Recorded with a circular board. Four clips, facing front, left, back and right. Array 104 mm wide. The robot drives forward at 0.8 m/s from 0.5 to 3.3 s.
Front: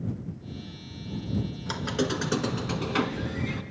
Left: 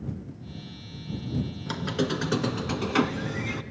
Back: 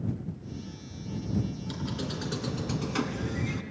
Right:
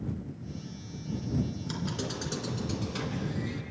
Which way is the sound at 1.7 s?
40° left.